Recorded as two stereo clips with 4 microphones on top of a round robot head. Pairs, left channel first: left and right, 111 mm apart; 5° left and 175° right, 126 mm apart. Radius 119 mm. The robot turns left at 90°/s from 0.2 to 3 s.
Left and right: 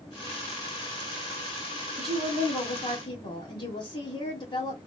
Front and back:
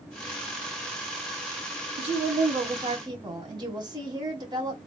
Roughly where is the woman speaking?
Behind right.